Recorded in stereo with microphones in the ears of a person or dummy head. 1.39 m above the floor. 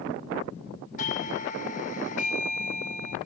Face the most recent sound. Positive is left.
turn(degrees=40)  # may be behind; listen again after turning